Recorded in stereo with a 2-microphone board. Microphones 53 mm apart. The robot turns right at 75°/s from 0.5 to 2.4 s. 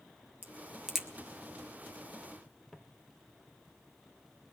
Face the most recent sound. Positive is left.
turn(degrees=0)  # may be behind; listen again after turning